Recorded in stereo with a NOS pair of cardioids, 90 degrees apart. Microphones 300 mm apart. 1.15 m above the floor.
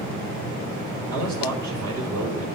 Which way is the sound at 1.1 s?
65° right.